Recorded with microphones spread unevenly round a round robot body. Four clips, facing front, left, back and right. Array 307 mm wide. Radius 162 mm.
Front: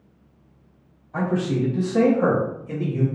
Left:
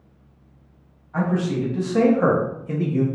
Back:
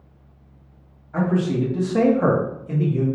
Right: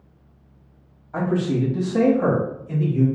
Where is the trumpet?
No trumpet in this recording.